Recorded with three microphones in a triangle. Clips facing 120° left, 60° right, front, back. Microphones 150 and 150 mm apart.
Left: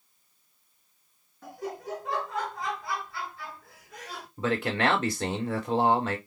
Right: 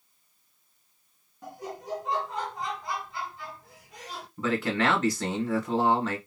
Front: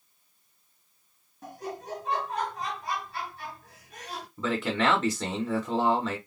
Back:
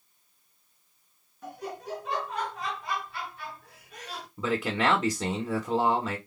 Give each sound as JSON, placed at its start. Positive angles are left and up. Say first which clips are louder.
{"t": 1.4, "sound": "laughter", "louder": "left 2 dB, even", "azimuth_deg": -5, "distance_m": 2.0}
{"t": 4.4, "sound": "a man speaking", "louder": "even, even", "azimuth_deg": 125, "distance_m": 1.2}